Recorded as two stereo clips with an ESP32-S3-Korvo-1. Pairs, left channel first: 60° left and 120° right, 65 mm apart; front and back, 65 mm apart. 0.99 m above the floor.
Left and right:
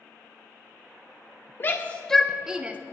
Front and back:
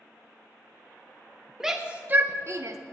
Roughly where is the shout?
Left.